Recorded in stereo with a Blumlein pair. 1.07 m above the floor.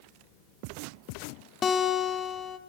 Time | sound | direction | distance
1.6 | a guitar | 25° left | 1.6 m